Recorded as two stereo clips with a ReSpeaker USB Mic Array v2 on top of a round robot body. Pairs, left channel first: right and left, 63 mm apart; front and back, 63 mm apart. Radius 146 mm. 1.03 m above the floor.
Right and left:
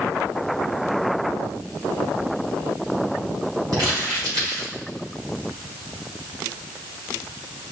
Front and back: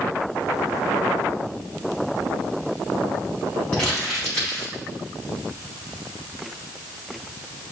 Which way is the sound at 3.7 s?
70° left.